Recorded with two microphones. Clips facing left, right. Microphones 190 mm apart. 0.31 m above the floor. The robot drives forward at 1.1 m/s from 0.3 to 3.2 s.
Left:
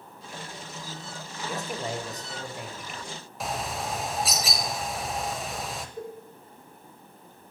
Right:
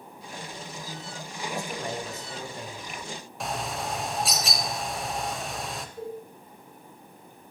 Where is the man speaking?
20° left (ahead or behind), 1.3 m; by 3.0 s 10° left (ahead or behind), 2.5 m.